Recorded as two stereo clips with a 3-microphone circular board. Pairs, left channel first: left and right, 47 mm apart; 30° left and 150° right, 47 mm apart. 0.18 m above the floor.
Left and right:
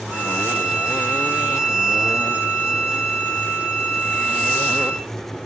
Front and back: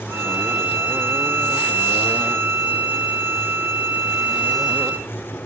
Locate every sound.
0.1 s a violin: 155° right, 3 m